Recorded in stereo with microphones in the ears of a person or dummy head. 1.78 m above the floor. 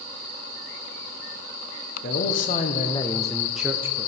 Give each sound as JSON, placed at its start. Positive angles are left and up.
{"t": 2.0, "sound": "a man speaking", "side_deg": 50, "distance_m": 1.1}